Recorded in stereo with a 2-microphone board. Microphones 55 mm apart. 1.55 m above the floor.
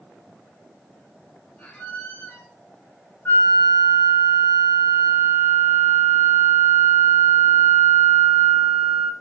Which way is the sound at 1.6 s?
35° left (ahead or behind).